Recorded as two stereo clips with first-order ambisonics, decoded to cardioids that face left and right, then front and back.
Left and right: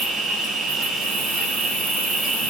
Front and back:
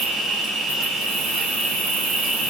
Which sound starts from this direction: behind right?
An insect, at 0.0 s.